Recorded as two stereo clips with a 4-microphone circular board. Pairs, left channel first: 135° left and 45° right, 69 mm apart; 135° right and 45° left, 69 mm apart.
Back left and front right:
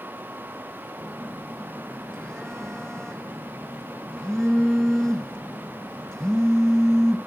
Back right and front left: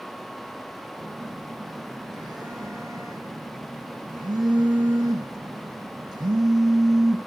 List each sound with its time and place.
1.0 s a phone buzzing: 55° left, 1.4 m